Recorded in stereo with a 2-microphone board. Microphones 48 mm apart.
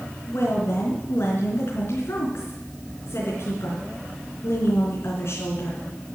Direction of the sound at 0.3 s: 60° left (ahead or behind).